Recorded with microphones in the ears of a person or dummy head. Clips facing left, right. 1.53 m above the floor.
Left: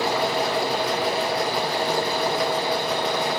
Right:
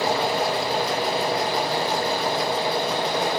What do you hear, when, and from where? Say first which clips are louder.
0.0 s a machine running: even; 30° right (ahead or behind), 3.5 m